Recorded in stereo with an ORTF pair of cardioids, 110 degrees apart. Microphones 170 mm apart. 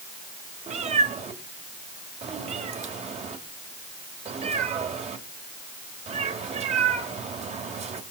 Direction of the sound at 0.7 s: 40° right.